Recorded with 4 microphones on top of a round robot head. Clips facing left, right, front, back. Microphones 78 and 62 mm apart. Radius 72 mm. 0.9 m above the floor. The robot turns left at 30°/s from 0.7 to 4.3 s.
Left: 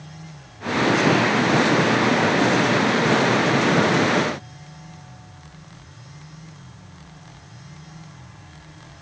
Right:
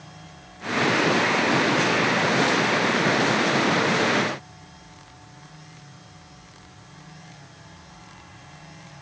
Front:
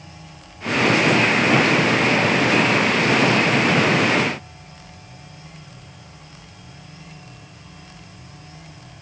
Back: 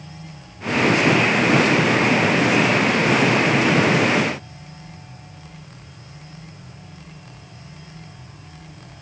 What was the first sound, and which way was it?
Only background noise.